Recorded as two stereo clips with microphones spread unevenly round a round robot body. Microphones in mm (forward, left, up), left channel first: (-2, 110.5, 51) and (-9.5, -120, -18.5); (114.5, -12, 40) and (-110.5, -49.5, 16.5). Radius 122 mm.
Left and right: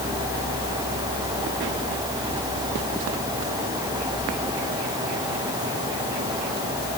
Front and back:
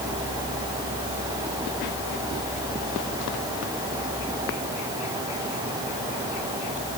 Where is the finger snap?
No finger snap in this recording.